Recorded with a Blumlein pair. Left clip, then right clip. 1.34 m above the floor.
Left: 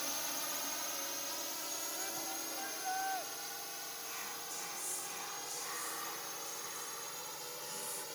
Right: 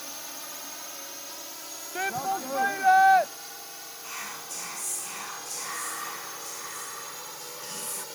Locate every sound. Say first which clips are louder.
0.0 s a drone: even; straight ahead; by 8.2 s 15° right
1.9 s a shout: right 13 dB; 50° right
4.0 s whispering: right 11 dB; 30° right